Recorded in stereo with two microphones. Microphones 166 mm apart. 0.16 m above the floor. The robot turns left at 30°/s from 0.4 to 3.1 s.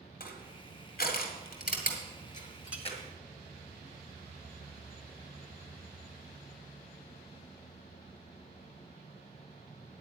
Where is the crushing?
55° left (ahead or behind), 1.9 m; by 3.0 s 35° left (ahead or behind), 1.9 m.